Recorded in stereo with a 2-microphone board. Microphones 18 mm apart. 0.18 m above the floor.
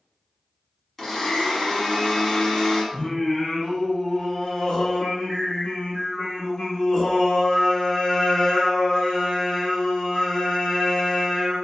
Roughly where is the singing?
Left.